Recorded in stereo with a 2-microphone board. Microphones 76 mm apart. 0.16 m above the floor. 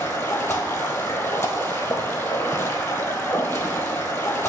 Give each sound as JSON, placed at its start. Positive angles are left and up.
{"t": 0.0, "sound": "running water", "side_deg": 30, "distance_m": 0.9}